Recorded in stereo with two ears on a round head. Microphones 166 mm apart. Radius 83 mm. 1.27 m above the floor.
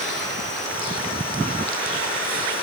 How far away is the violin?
I don't hear a violin.